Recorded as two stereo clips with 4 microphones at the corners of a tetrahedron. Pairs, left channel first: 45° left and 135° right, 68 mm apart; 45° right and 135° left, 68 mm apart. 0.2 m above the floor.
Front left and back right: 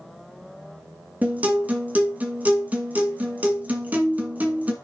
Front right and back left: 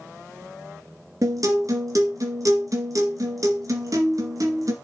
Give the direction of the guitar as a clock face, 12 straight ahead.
7 o'clock.